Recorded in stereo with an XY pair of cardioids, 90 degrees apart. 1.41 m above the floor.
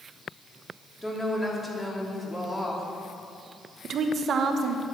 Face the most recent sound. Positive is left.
turn(degrees=-70)